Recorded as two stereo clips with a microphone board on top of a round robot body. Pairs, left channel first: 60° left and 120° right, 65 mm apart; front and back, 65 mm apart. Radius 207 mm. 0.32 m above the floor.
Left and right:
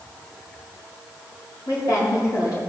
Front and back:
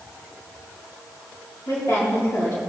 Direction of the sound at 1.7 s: 35° left.